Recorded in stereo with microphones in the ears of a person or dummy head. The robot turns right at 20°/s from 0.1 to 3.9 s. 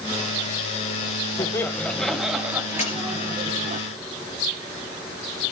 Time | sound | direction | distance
1.4 | laughter | 165° left | 1.3 m
2.8 | a dropped coin | 35° left (ahead or behind) | 4.5 m